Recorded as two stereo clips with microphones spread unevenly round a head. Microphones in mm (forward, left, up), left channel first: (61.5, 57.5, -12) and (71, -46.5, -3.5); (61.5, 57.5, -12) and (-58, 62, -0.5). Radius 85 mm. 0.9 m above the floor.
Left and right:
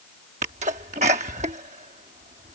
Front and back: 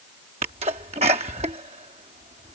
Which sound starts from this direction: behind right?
A sneeze, at 0.4 s.